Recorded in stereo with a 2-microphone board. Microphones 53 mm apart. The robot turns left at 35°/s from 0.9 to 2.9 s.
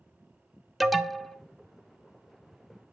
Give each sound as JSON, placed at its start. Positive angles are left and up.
{"t": 0.8, "sound": "an alarm", "side_deg": 0, "distance_m": 0.6}